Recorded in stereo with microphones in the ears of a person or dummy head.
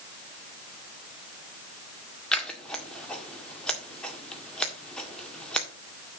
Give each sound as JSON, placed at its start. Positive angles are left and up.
{"t": 2.3, "sound": "scissors", "side_deg": 5, "distance_m": 1.8}